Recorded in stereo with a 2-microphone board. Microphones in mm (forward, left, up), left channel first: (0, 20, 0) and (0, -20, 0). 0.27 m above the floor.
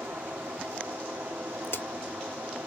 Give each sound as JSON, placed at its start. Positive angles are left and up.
{"t": 0.0, "sound": "running water", "side_deg": -80, "distance_m": 1.8}
{"t": 1.6, "sound": "a crack", "side_deg": 85, "distance_m": 0.9}